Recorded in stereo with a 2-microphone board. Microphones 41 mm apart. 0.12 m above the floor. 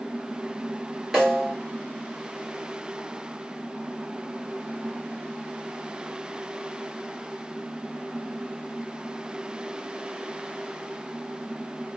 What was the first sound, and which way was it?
A snare drum, 5° right (ahead or behind).